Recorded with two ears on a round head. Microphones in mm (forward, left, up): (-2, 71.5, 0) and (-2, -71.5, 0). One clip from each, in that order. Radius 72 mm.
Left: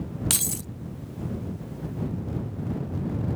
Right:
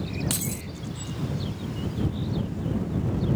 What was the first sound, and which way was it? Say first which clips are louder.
Keys jangling: left 4 dB; 25° left (ahead or behind).